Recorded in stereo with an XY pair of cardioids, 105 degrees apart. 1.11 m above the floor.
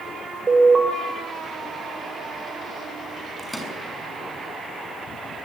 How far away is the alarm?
About 6.5 m.